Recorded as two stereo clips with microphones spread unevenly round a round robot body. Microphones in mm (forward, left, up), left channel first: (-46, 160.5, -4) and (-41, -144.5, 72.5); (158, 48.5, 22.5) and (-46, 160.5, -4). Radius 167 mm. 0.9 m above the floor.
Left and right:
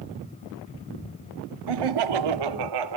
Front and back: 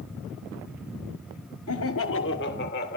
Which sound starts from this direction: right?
Laughter, at 1.7 s.